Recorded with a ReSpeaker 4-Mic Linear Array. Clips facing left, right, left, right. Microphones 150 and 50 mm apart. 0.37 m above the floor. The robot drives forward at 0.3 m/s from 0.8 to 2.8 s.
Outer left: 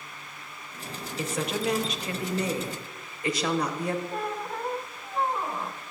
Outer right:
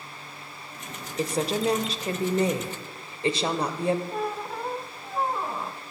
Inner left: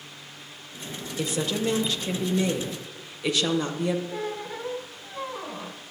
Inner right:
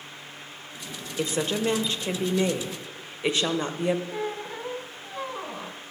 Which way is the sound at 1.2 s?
35° right (ahead or behind).